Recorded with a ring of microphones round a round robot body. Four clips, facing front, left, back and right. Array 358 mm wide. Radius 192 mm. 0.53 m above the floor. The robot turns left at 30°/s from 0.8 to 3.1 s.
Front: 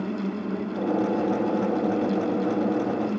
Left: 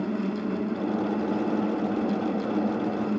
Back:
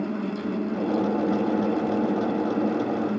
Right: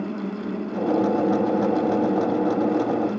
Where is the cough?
I don't hear a cough.